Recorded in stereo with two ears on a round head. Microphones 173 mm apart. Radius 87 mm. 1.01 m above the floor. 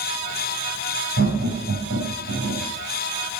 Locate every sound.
1.2 s laughter: 85° right, 7 m